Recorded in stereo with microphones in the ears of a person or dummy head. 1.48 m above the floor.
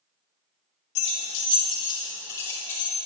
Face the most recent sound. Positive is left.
turn(degrees=10)  # may be behind; listen again after turning